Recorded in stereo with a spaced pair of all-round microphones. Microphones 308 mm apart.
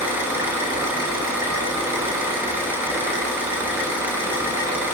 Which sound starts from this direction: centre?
An engine running, at 0.0 s.